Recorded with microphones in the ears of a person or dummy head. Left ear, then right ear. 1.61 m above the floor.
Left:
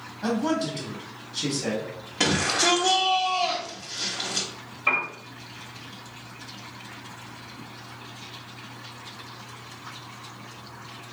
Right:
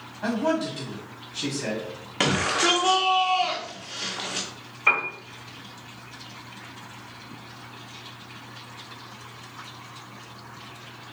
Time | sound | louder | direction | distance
0.2 | a man speaking | right 1 dB | 35° right (ahead or behind) | 1.7 m
2.2 | a shout | even | 40° right (ahead or behind) | 1.0 m
4.9 | a piano | right 2 dB | 40° right (ahead or behind) | 1.5 m